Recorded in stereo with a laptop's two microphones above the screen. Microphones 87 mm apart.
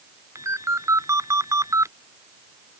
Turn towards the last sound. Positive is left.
turn(degrees=-35)  # may be behind; listen again after turning